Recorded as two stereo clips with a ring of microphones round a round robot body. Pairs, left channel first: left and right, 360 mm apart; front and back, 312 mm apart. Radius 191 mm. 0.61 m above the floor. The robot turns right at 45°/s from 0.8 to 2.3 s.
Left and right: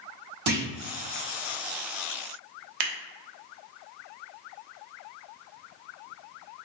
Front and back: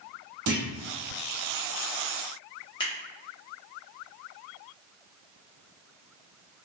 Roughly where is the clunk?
Behind right.